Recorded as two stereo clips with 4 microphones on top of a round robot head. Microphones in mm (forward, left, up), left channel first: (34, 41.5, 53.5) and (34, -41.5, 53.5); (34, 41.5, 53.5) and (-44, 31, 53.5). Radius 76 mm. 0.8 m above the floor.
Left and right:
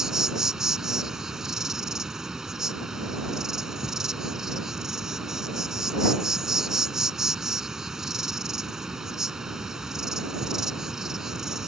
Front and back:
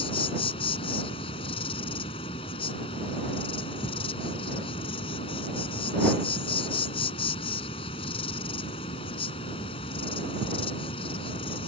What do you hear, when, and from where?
0.0 s an insect: 5° right